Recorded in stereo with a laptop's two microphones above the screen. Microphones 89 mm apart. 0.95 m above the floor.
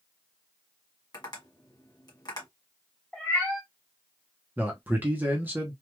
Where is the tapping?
50° left (ahead or behind), 1.3 m.